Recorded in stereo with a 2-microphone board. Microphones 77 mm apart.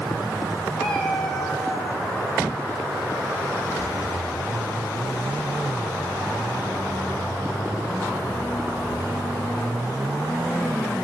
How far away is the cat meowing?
About 6.5 m.